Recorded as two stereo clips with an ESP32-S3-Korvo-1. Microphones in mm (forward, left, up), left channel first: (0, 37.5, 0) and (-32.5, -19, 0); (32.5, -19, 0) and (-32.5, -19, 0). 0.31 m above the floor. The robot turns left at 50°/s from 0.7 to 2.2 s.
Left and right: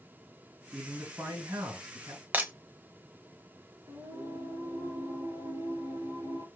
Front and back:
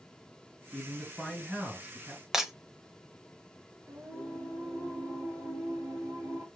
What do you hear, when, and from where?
0.7 s a man speaking: 60° right, 2.5 m; by 2.2 s 135° right, 2.5 m
2.3 s breaking glass: 105° right, 0.7 m
3.9 s singing: 120° right, 3 m